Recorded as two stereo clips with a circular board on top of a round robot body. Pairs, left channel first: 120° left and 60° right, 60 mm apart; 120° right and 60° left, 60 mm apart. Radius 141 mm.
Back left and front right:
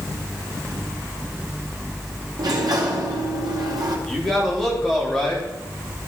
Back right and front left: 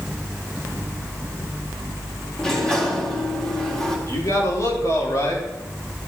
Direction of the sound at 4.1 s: 155° right.